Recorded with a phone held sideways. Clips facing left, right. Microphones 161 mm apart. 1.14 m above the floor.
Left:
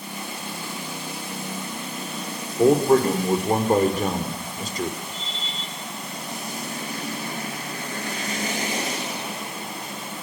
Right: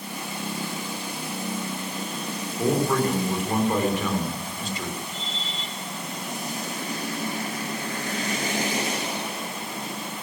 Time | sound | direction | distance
2.6 | a man speaking | 40° left (ahead or behind) | 4.5 m